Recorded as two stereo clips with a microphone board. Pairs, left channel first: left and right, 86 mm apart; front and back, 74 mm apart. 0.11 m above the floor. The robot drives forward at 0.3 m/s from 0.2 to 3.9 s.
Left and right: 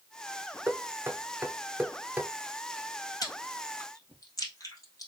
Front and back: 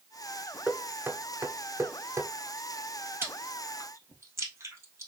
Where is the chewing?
125° left, 1.6 m; by 5.1 s 130° left, 1.8 m.